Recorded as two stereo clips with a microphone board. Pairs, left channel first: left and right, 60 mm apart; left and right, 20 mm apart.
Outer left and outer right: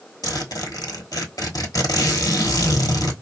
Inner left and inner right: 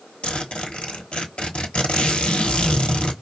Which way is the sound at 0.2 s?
80° left.